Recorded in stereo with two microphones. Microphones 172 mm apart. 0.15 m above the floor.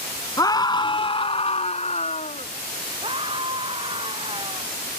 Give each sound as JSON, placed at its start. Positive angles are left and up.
{"t": 0.4, "sound": "a scream", "side_deg": 20}
{"t": 3.0, "sound": "a scream", "side_deg": -30}